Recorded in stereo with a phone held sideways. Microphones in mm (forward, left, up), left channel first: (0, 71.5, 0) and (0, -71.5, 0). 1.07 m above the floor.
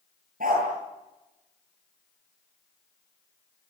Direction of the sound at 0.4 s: 75° right (ahead or behind).